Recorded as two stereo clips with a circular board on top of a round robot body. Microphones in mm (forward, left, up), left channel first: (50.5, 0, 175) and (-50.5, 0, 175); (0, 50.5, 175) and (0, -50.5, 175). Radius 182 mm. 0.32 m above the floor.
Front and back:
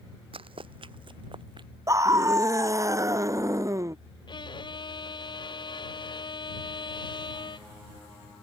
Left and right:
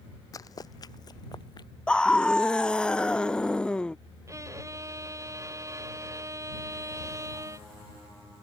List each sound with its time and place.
0.3 s running footsteps: 145° left; by 1.7 s 140° left
1.9 s a scream: 165° left
4.3 s a violin: 35° right